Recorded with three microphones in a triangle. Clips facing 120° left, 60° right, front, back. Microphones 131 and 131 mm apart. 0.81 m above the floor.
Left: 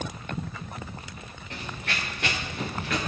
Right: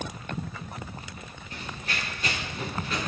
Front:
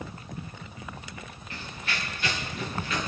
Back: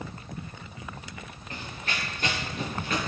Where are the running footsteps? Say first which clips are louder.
Left 2 dB, back 1 dB; 130° left, 4.5 m; by 3.0 s 140° left, 5.5 m.